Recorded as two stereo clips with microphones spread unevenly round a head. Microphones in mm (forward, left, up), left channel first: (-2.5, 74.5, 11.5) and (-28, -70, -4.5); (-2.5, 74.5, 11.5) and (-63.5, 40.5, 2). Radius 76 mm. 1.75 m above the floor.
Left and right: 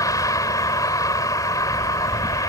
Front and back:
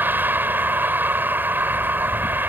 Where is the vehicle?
145° left.